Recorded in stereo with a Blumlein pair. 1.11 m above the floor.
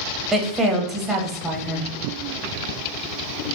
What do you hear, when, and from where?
0.3 s a woman speaking: 15° right, 0.6 m